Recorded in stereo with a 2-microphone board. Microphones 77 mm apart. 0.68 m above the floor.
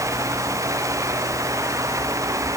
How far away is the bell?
No bell in this recording.